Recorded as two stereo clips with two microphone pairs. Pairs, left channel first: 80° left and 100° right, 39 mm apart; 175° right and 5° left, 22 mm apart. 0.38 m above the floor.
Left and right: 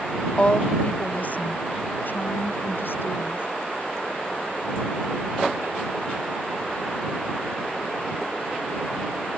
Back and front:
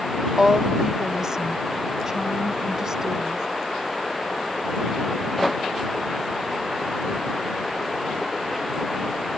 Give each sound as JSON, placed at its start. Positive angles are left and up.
{"t": 0.4, "sound": "a woman speaking", "azimuth_deg": 45}